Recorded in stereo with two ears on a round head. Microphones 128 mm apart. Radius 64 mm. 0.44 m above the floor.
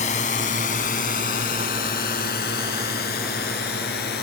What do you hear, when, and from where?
0.0 s a drone: 50° left (ahead or behind); by 4.2 s 80° left